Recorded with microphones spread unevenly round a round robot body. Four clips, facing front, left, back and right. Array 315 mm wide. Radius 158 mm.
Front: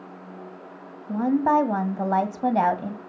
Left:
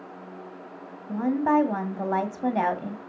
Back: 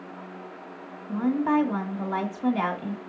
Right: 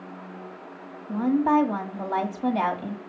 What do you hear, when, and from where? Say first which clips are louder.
1.1 s a woman speaking: right 1 dB, front 3 dB; straight ahead, 1.7 m